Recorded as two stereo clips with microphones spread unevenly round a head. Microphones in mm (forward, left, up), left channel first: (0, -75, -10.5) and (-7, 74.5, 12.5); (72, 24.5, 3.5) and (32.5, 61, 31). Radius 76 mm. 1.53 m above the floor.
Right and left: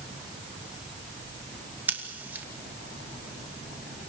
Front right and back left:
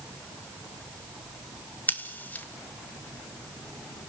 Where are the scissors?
15° left, 2.5 m.